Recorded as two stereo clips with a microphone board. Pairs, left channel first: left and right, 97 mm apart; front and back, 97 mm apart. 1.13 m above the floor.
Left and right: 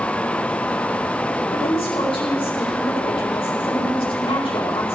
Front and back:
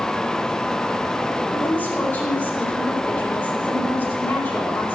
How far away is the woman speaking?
About 4 m.